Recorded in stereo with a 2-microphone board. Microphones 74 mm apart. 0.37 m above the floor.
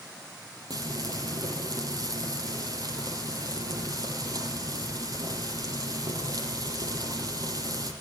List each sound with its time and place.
0.7 s frying: 55° right (ahead or behind), 5.5 m